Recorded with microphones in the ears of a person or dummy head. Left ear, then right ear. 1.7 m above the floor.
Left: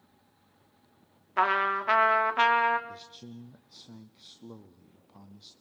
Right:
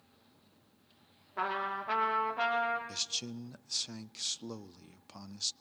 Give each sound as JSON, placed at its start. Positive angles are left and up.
{"t": 1.4, "sound": "a trumpet", "side_deg": 55, "distance_m": 1.7}
{"t": 2.9, "sound": "a man speaking", "side_deg": -65, "distance_m": 0.5}